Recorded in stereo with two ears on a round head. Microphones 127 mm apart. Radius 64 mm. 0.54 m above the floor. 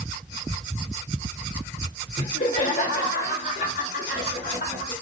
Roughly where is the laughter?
Left.